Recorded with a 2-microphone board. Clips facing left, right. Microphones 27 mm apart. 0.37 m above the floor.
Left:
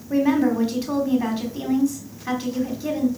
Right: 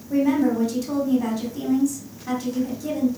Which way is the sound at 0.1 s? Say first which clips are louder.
Left 1 dB; 35° left (ahead or behind).